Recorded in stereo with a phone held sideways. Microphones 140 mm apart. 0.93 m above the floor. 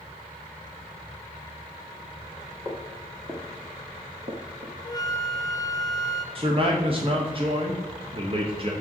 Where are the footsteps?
10° right (ahead or behind), 2.5 m; by 4.7 s 50° right (ahead or behind), 1.5 m.